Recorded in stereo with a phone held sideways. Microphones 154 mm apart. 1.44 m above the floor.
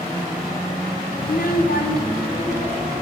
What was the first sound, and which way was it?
A child speaking, 70° left (ahead or behind).